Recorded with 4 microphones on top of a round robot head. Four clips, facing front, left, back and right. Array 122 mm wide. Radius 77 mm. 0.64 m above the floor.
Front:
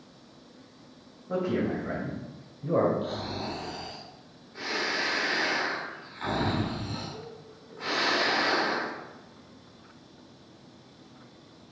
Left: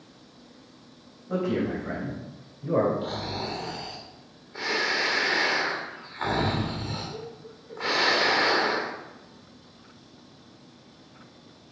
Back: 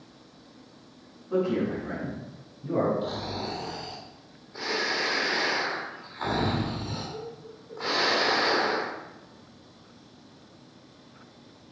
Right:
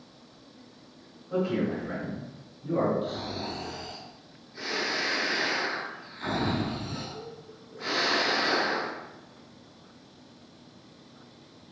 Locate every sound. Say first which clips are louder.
1.3 s a man speaking: left 1 dB, back 2 dB; 40° left, 4.5 m; by 2.9 s 50° left, 3.5 m
3.0 s snoring: left 1 dB, back 1 dB; 120° left, 2.5 m